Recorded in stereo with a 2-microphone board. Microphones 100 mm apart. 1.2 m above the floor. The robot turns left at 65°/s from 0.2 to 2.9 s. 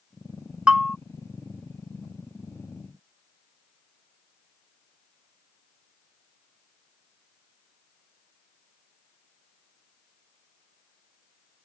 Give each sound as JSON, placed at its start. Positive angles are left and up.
{"t": 0.7, "sound": "a bell", "side_deg": -10}